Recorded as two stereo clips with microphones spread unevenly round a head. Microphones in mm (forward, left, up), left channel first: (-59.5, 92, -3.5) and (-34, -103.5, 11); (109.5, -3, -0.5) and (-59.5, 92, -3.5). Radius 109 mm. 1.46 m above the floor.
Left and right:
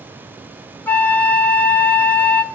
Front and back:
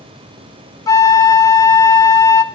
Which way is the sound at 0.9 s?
15° left.